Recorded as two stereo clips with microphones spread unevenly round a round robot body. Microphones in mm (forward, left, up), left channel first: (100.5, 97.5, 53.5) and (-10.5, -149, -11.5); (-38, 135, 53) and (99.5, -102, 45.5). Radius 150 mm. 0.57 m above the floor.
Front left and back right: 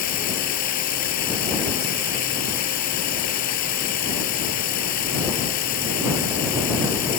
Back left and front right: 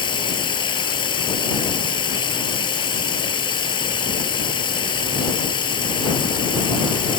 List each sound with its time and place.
0.0 s running water: 50° left